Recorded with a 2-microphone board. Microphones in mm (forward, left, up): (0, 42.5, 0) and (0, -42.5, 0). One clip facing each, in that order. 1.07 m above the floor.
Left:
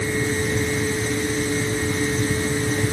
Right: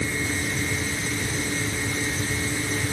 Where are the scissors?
No scissors in this recording.